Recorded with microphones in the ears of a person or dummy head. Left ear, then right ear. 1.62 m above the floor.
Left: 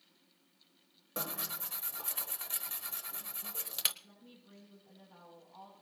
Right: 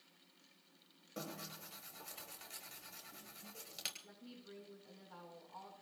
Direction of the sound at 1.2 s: 50° left (ahead or behind).